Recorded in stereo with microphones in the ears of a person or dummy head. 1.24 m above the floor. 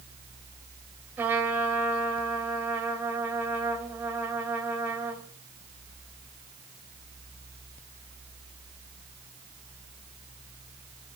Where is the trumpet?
15° right (ahead or behind), 4 m.